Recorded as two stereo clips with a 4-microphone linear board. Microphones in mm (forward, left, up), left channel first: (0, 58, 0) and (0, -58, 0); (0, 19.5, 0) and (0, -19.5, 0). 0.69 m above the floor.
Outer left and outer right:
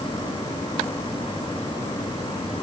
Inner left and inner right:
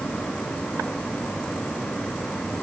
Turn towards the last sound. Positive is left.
No sound to turn to.